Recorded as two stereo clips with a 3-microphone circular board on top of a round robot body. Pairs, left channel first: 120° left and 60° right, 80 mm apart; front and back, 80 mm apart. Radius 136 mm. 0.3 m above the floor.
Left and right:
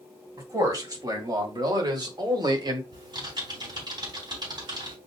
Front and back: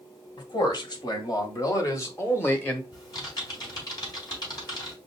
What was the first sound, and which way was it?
A man speaking, 20° right.